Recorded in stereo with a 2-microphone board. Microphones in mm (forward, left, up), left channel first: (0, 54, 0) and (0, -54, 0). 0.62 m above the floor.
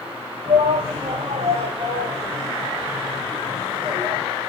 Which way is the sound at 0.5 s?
80° right.